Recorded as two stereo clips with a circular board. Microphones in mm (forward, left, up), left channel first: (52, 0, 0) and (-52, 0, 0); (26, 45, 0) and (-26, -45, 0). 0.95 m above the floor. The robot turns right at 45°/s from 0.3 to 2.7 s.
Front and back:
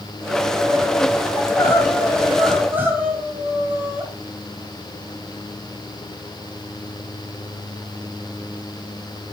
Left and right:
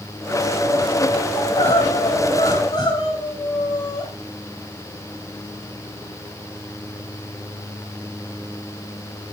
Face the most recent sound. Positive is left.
turn(degrees=110)